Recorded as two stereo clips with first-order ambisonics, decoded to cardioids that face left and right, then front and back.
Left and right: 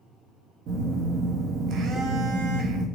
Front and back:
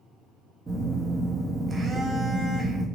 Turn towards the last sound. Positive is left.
turn(degrees=-115)